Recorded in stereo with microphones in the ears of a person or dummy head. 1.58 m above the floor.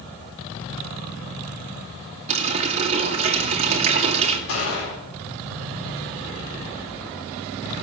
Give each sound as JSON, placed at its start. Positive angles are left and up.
{"t": 2.3, "sound": "a running tap", "side_deg": -35, "distance_m": 2.0}
{"t": 4.5, "sound": "a gunshot", "side_deg": 75, "distance_m": 4.0}